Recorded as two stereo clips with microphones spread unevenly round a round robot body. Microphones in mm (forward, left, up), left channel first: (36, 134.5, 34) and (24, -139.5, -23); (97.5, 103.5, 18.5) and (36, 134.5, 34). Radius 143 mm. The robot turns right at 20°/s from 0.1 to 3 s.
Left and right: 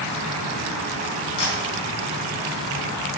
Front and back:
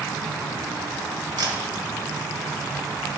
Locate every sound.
1.4 s a camera shutter: 125° left, 1.2 m; by 1.6 s 130° left, 1.2 m